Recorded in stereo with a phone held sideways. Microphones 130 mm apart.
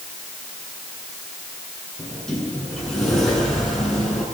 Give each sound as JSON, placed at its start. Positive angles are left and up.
{"t": 2.0, "sound": "a sliding door", "side_deg": 5, "distance_m": 9.0}